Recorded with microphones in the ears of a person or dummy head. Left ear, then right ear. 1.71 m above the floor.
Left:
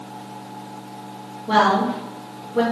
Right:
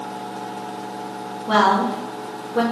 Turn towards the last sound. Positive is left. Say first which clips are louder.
# even
turn(degrees=-15)  # may be behind; listen again after turning